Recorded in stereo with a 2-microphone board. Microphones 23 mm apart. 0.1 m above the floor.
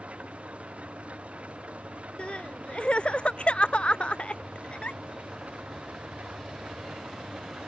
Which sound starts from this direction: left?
Crying, at 2.2 s.